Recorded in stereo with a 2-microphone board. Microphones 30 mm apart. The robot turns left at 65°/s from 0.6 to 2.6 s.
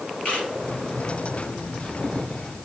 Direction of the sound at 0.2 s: 50° left (ahead or behind).